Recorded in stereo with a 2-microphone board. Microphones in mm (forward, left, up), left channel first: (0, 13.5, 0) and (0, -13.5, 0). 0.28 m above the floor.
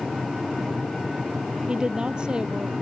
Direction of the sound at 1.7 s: 25° right (ahead or behind).